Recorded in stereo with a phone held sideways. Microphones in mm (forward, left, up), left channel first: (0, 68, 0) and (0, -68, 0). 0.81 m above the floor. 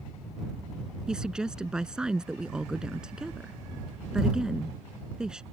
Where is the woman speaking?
5° right (ahead or behind).